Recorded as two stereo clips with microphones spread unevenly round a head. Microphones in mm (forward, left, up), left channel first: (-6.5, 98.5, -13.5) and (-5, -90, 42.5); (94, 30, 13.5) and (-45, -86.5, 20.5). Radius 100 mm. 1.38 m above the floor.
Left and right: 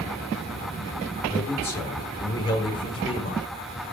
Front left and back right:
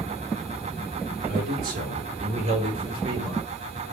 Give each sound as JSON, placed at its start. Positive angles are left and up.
{"t": 1.3, "sound": "a man speaking", "azimuth_deg": 175, "distance_m": 4.5}